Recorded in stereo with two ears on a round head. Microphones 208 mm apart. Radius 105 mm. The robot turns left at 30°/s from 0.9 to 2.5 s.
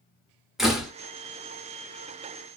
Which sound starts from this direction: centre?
A door slam, at 0.6 s.